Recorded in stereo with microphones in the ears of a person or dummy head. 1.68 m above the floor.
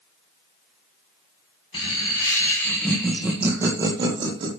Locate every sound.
1.7 s laughter: 30° left (ahead or behind), 1.8 m; by 4.5 s 35° right (ahead or behind), 1.8 m